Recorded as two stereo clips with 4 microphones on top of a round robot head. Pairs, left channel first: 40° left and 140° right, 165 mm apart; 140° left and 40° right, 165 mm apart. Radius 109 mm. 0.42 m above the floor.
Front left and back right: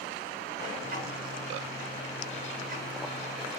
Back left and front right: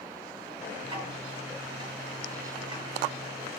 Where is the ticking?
100° right, 3 m.